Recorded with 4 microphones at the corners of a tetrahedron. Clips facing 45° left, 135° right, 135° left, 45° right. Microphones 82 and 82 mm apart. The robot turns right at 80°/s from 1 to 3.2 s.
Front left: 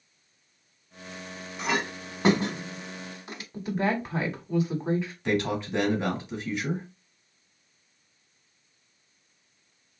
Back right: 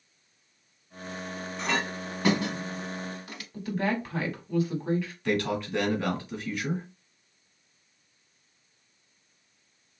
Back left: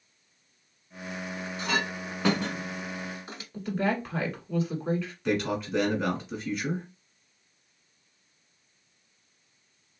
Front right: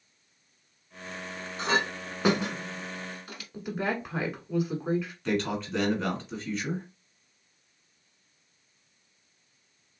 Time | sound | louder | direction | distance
1.6 | a clink | front left 1 dB, front right 3 dB | 35° right | 0.7 m
3.5 | a woman speaking | front left 2 dB, back left 3 dB | 20° left | 1.1 m
5.2 | a man speaking | front left 1 dB, back left 3 dB | 60° left | 1.4 m